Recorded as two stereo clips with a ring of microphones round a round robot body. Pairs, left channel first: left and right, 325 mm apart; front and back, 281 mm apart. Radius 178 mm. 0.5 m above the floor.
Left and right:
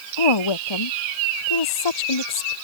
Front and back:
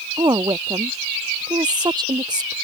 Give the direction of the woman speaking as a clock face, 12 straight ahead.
9 o'clock.